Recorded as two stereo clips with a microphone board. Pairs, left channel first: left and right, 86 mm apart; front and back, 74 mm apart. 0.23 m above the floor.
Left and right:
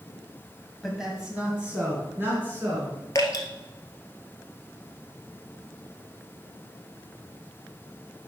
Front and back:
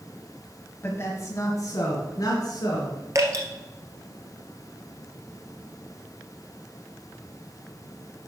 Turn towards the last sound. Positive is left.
turn(degrees=135)